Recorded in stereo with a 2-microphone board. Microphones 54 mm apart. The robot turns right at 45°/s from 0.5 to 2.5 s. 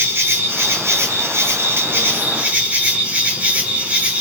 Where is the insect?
125° right, 0.8 m; by 4.2 s 35° right, 0.8 m.